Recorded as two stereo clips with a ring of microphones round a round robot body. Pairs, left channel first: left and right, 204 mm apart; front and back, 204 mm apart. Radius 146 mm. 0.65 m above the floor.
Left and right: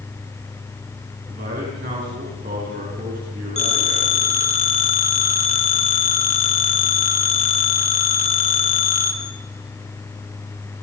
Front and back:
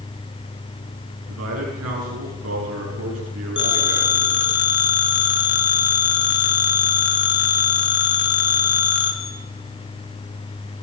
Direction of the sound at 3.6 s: 30° left.